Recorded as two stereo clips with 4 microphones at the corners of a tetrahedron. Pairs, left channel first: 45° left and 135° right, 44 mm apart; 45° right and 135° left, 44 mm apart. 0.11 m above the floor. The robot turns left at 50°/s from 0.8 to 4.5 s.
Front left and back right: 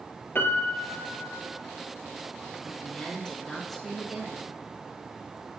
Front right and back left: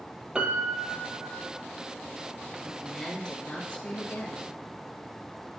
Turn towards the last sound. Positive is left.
turn(degrees=-75)